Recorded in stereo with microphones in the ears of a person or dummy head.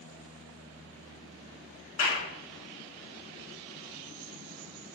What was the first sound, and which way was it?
A clap, 75° left (ahead or behind).